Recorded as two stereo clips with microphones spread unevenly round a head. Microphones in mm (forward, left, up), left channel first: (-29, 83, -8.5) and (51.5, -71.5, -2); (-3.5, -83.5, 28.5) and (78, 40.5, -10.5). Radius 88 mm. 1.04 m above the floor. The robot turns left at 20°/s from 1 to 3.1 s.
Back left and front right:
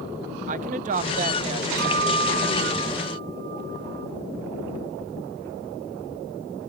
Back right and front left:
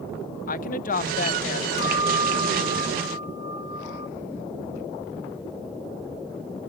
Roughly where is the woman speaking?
Right.